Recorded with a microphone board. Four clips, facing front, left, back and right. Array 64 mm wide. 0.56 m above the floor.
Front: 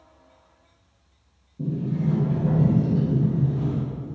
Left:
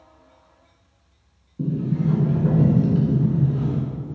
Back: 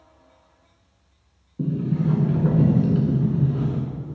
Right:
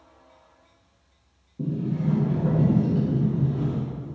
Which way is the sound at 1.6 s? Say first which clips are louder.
Left 3 dB, back 2 dB; 170° left.